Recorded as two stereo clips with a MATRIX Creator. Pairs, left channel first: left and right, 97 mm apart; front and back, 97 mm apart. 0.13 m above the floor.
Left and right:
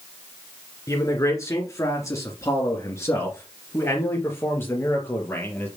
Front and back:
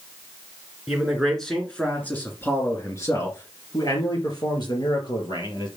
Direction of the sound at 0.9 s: 95° left.